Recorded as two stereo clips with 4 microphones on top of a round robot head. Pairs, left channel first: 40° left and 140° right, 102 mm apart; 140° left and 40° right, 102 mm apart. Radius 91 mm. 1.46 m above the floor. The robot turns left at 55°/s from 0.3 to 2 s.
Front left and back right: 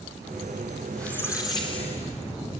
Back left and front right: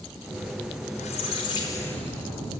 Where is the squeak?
125° left, 3.5 m; by 2.5 s 65° left, 3.5 m.